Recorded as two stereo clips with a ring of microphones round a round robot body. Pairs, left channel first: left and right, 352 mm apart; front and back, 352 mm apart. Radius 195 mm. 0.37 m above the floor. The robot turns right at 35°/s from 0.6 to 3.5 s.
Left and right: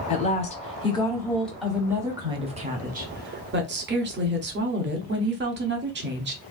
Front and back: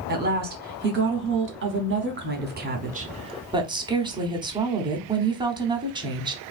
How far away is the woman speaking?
About 0.9 m.